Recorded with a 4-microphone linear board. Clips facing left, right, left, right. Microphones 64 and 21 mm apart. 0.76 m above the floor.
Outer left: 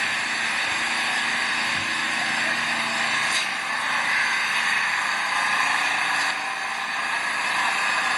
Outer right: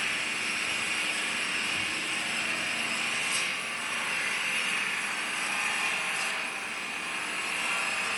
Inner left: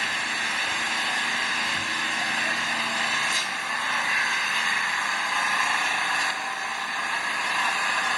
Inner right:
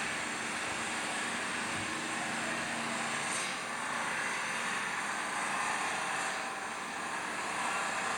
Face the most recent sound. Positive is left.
turn(degrees=75)  # may be behind; listen again after turning